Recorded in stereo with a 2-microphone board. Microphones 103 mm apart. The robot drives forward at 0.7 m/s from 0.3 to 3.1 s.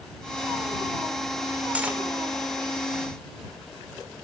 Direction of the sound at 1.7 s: 15° right (ahead or behind).